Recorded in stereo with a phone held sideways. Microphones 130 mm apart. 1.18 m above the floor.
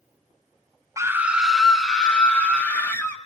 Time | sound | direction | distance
1.0 | a scream | 25° right (ahead or behind) | 0.6 m